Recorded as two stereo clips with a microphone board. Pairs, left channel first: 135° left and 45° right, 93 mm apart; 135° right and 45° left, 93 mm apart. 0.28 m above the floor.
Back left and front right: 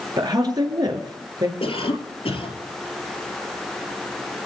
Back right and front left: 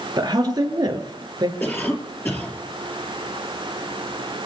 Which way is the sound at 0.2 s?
Straight ahead.